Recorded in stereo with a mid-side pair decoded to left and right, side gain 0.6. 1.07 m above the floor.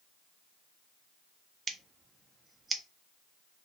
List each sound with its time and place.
1.7 s scissors: 25° right, 0.6 m